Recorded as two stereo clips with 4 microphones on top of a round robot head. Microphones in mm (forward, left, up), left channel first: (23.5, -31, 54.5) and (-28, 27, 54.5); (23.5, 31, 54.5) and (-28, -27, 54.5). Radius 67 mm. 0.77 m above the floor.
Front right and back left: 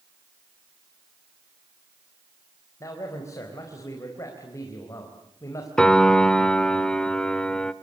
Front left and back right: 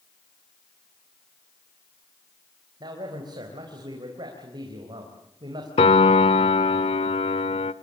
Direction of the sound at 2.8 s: 100° right.